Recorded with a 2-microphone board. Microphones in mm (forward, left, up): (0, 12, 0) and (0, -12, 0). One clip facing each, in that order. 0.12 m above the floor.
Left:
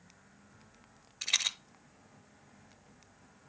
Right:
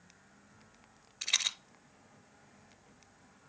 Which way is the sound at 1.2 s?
Centre (ahead or behind).